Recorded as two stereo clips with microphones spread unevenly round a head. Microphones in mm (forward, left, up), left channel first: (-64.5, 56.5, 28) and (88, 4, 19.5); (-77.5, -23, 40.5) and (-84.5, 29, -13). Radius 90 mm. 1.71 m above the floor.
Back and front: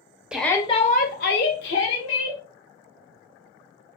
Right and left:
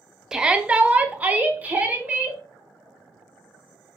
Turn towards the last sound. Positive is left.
turn(degrees=175)